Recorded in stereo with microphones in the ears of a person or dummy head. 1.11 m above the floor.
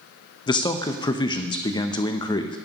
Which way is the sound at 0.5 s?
20° left (ahead or behind).